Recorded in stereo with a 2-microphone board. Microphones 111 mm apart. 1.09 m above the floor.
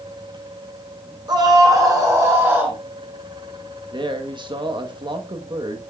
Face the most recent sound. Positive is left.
turn(degrees=-45)  # may be behind; listen again after turning